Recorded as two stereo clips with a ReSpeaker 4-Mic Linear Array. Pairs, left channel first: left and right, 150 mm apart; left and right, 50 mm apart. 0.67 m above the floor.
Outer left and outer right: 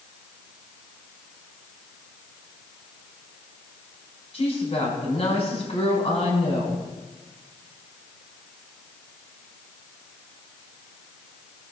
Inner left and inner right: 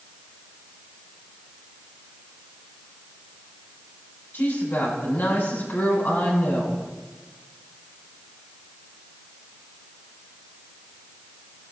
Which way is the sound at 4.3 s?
45° left (ahead or behind).